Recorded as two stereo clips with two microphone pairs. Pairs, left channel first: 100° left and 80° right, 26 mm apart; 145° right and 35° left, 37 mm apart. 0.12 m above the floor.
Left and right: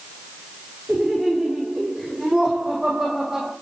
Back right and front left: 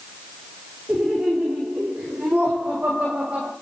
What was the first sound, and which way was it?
Laughter, 25° right.